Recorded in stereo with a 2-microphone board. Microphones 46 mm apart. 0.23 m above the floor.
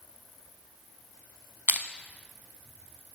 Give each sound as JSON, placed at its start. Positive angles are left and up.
{"t": 1.7, "sound": "crushing", "side_deg": -55, "distance_m": 0.6}